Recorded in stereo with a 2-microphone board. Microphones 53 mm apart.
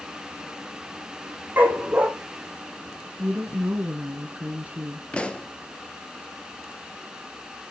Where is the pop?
20° left (ahead or behind), 1.5 m.